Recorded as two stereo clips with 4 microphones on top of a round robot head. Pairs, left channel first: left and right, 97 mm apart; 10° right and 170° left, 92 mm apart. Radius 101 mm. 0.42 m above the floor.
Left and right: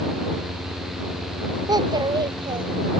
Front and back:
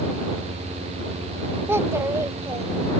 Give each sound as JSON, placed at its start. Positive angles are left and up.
{"t": 1.7, "sound": "a child speaking", "azimuth_deg": -130}